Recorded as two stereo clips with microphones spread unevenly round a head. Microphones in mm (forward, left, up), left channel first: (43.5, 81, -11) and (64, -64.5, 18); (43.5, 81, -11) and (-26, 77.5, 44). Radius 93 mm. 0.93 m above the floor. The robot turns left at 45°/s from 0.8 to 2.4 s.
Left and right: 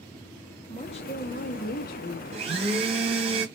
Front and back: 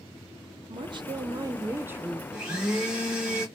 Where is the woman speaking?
155° left, 0.7 m; by 2.2 s 90° left, 0.7 m.